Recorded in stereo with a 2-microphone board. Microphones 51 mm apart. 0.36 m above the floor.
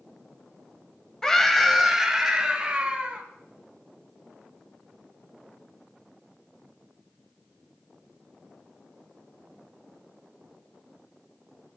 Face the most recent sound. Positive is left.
turn(degrees=-25)  # may be behind; listen again after turning